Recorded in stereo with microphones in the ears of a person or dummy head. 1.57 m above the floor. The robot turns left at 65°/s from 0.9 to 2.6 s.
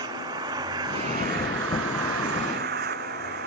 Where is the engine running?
20° right; by 3.5 s 130° right.